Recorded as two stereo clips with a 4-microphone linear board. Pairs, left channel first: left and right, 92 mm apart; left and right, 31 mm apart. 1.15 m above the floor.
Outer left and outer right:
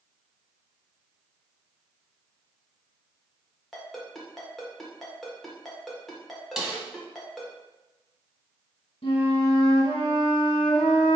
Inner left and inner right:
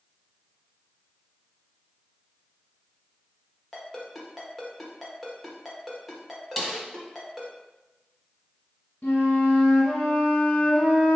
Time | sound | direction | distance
3.7 | a ringtone | centre (ahead or behind) | 1.2 m
6.6 | a snare drum | 5° right (ahead or behind) | 1.1 m
9.0 | a flute | 70° left (ahead or behind) | 1.6 m